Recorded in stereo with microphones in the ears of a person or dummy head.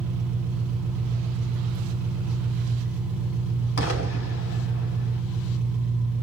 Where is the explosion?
65° left (ahead or behind), 2 m.